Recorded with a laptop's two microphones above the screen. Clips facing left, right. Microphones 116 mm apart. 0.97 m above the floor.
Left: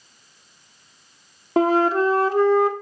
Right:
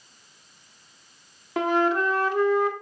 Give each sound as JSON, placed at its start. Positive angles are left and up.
{"t": 1.6, "sound": "a flute", "side_deg": 35, "distance_m": 0.7}